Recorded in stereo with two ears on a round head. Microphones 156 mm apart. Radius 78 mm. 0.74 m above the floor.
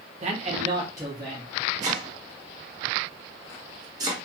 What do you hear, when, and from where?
0.2 s a man speaking: 40° right (ahead or behind), 0.7 m; by 1.5 s 10° right (ahead or behind), 1.2 m
1.8 s chopping: 20° right (ahead or behind), 0.9 m